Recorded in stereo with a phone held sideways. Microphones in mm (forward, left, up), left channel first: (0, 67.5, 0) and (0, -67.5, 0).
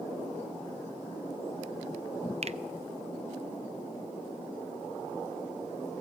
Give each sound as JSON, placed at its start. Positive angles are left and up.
{"t": 2.4, "sound": "a finger snap", "side_deg": -50, "distance_m": 0.6}